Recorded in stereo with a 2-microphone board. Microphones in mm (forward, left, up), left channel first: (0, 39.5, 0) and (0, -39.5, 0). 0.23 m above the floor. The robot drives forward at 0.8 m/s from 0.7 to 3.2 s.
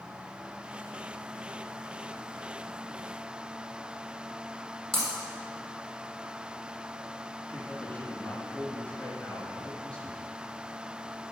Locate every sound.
4.9 s breaking glass: 5° left (ahead or behind), 4.5 m
7.5 s a man speaking: 20° left (ahead or behind), 3.5 m